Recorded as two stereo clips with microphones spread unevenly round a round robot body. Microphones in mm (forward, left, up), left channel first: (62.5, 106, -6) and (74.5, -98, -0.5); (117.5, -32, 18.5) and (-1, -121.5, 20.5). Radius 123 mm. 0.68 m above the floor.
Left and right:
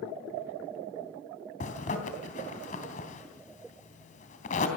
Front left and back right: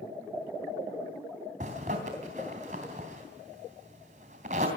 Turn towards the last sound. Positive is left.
turn(degrees=155)